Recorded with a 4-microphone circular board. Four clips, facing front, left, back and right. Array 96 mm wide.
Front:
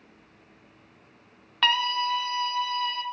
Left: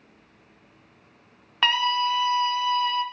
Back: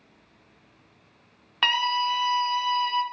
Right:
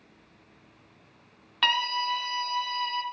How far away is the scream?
About 0.8 m.